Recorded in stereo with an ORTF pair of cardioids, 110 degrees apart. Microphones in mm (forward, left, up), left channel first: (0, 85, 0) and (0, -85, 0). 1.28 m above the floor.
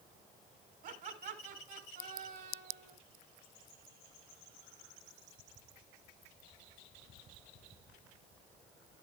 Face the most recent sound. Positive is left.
turn(degrees=-70)